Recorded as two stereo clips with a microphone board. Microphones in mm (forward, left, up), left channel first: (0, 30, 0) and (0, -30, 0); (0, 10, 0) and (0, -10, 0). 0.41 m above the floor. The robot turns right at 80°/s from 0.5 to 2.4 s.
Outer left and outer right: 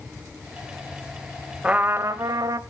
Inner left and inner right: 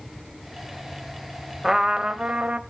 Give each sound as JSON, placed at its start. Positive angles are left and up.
{"t": 1.6, "sound": "a trumpet", "azimuth_deg": -160, "distance_m": 0.6}